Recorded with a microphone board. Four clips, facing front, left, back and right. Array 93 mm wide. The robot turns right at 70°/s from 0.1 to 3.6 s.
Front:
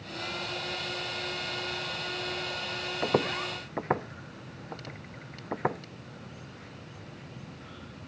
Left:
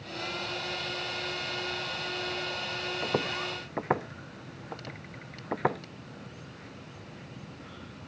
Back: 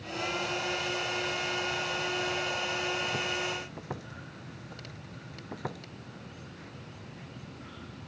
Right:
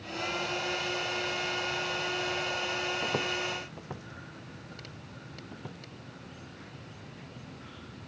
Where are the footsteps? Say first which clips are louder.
Left 1 dB, front 4 dB; 5° left; by 5.8 s 60° left.